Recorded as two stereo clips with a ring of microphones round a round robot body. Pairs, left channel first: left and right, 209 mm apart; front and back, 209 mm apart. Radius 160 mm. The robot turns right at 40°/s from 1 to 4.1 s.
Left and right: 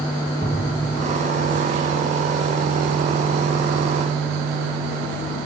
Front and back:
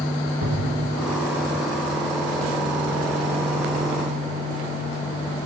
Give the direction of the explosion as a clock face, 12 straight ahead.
6 o'clock.